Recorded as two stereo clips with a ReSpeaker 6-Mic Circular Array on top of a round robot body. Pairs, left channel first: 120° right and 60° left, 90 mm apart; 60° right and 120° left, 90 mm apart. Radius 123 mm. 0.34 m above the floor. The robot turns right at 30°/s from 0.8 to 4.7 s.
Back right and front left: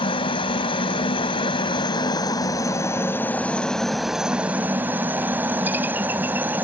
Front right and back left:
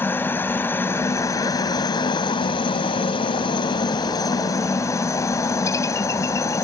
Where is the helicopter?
125° right; by 6.6 s 10° right.